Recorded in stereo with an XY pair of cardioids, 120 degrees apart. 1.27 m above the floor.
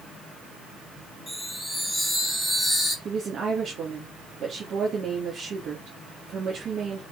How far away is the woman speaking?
About 3 m.